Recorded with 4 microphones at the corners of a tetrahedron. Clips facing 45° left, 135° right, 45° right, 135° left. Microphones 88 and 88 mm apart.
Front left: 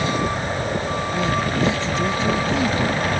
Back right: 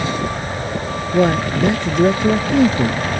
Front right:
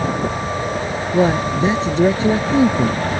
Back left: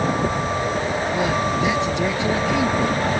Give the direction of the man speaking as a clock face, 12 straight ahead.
3 o'clock.